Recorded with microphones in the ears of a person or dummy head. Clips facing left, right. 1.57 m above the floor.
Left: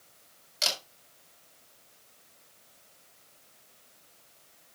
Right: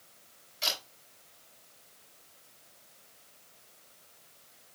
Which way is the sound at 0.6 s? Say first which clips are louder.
Left 3 dB; 75° left (ahead or behind).